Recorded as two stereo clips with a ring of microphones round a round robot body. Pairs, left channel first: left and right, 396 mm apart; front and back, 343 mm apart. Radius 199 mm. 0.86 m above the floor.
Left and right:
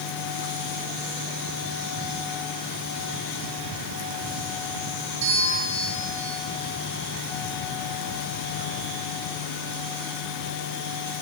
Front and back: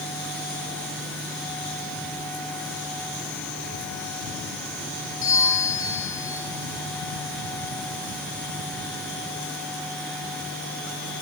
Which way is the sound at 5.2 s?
70° right.